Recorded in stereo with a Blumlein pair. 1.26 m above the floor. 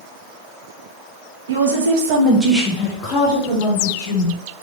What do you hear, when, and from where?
1.5 s a woman speaking: 70° right, 1.2 m; by 4.4 s 55° left, 2 m